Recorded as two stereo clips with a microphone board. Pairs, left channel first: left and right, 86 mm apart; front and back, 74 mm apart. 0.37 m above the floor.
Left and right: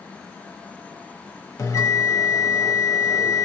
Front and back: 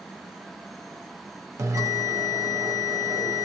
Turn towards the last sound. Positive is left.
turn(degrees=140)